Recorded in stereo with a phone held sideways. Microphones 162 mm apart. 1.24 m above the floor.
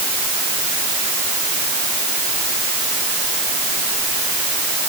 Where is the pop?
No pop in this recording.